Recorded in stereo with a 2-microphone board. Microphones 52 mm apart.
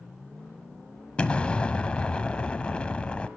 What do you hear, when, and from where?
1.2 s an explosion: 25° left (ahead or behind), 0.9 m